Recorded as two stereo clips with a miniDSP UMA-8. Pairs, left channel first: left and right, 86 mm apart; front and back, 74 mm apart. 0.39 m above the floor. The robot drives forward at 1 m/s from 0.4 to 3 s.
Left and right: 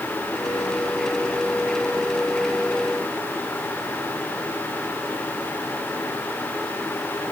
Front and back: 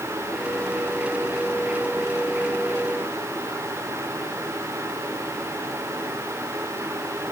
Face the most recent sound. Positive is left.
No sound to turn to.